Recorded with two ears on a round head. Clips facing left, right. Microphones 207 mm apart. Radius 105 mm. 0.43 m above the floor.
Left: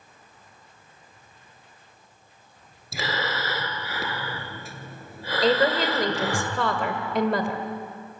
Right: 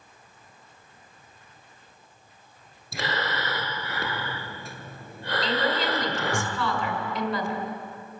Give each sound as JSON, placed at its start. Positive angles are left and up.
{"t": 2.9, "sound": "breathing", "side_deg": 0, "distance_m": 1.8}
{"t": 5.4, "sound": "a woman speaking", "side_deg": 45, "distance_m": 2.0}